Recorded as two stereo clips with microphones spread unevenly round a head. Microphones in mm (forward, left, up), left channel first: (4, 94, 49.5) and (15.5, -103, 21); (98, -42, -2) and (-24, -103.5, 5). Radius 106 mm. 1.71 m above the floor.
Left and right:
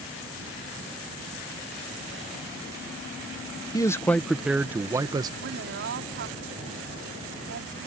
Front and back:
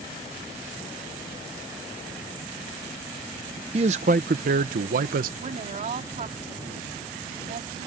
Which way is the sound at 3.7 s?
160° left.